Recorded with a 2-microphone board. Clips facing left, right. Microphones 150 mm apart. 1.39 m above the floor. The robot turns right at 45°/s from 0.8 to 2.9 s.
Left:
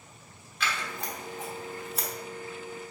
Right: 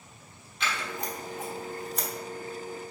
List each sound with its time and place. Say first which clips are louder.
0.6 s scissors: right 1 dB; 20° right (ahead or behind), 1.1 m; by 2.1 s 5° left (ahead or behind), 1.1 m